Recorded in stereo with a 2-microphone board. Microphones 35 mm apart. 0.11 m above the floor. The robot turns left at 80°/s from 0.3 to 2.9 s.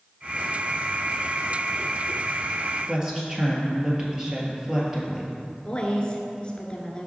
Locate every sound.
2.9 s a woman speaking: 20° right (ahead or behind), 1.9 m
5.7 s a woman speaking: 30° left (ahead or behind), 1.2 m